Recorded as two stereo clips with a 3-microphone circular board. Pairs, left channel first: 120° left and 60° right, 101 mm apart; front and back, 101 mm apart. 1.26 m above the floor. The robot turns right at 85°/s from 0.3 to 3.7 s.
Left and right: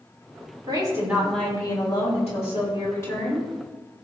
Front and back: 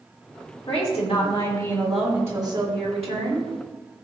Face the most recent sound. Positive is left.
turn(degrees=-120)